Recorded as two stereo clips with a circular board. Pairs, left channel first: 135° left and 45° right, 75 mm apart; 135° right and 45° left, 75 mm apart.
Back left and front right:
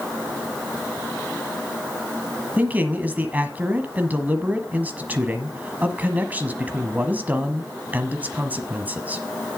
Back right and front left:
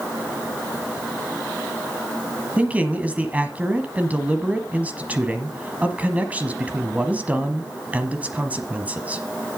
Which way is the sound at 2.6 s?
Straight ahead.